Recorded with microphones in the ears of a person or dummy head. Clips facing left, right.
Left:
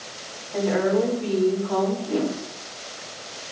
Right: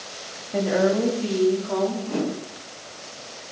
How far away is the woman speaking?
About 3 m.